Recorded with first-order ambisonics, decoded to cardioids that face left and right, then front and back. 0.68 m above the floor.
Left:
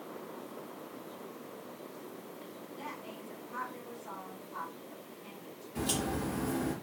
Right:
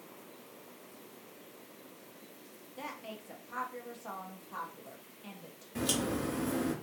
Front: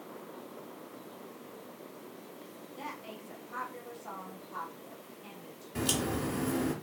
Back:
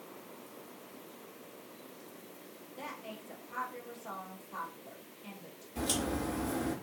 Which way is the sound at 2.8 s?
75° right.